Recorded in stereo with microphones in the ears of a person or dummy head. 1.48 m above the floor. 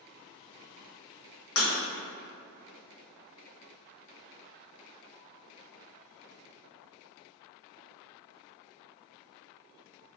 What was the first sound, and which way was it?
Breaking glass, 60° left (ahead or behind).